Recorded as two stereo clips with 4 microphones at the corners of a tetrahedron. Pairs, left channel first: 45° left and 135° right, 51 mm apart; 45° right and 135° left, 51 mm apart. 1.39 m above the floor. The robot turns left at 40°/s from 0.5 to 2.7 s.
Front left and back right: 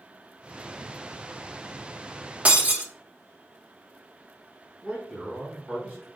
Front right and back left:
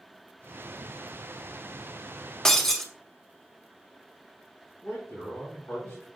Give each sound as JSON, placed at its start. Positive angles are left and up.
{"t": 2.5, "sound": "breaking glass", "azimuth_deg": -110, "distance_m": 0.9}
{"t": 4.8, "sound": "a man speaking", "azimuth_deg": -80, "distance_m": 3.0}